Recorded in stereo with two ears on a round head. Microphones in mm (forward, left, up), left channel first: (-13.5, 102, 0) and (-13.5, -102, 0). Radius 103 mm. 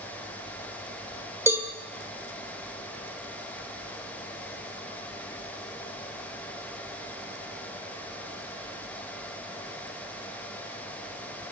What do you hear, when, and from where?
1.5 s a cowbell: 10° right (ahead or behind), 1.5 m